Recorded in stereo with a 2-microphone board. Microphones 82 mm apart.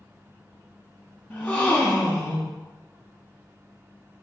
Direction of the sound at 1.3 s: 15° left (ahead or behind).